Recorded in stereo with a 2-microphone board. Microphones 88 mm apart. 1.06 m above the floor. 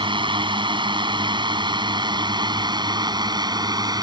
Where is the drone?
70° right (ahead or behind); by 4.0 s 50° right (ahead or behind).